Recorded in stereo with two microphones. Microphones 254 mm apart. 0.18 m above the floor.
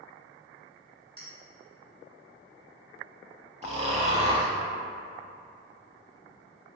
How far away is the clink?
About 1.4 m.